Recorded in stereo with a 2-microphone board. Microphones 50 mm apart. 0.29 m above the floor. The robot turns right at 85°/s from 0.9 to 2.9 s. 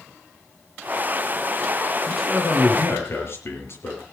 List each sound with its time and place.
2.1 s a man speaking: 15° right, 6 m; by 4.0 s 55° left, 6 m